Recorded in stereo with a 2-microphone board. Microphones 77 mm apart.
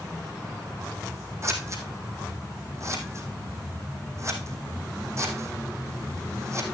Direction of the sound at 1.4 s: 40° right (ahead or behind).